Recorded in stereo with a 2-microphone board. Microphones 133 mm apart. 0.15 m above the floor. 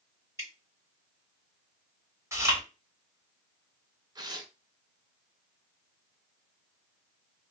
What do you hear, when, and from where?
0.4 s dripping: 25° right (ahead or behind), 2 m
2.3 s chewing: 20° right (ahead or behind), 1.4 m
4.2 s tearing paper: 30° right (ahead or behind), 0.6 m